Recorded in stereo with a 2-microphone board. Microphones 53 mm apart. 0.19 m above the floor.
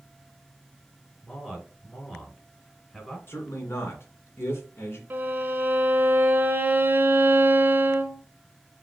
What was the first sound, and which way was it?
A man speaking, 15° left (ahead or behind).